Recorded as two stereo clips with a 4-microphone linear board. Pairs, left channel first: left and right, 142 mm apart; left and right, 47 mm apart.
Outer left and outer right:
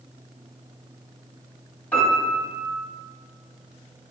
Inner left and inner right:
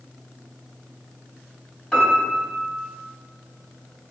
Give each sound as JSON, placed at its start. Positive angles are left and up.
{"t": 1.9, "sound": "a piano", "side_deg": 10, "distance_m": 1.4}